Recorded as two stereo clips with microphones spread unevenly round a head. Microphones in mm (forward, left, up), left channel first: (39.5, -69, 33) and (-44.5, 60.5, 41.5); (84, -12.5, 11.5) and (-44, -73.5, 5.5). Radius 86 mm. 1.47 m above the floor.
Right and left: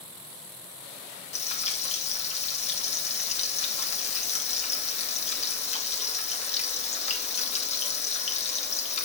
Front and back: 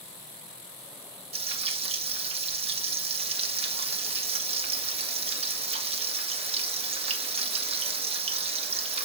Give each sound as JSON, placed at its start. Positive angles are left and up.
{"t": 1.3, "sound": "frying", "azimuth_deg": -105, "distance_m": 2.0}